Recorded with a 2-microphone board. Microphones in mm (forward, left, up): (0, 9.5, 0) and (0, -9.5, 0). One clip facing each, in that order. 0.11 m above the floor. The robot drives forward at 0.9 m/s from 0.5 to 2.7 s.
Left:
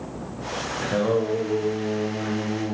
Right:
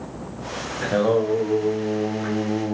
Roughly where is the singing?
Centre.